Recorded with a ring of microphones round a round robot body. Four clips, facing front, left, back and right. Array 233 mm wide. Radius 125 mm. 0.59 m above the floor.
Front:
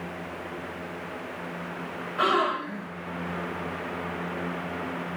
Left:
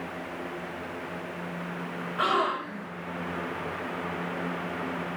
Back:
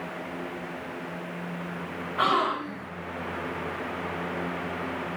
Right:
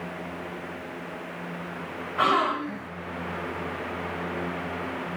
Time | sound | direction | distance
2.2 | a gasp | 120° right | 2.5 m